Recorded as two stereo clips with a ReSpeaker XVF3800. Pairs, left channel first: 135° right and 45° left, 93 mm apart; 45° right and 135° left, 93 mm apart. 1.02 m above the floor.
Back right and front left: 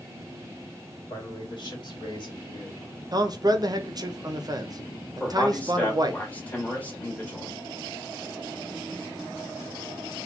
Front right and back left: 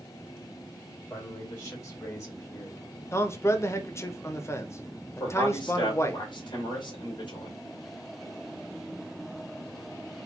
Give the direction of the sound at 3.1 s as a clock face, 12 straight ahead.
12 o'clock.